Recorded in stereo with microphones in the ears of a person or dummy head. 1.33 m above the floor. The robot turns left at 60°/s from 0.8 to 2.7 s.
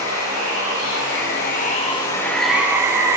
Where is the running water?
95° left, 2.5 m; by 3.2 s 20° right, 2.5 m.